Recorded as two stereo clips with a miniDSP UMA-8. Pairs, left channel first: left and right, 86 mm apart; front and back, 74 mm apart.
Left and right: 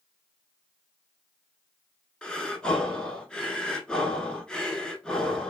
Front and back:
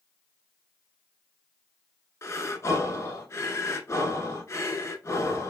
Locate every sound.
2.2 s breathing: 15° left, 0.5 m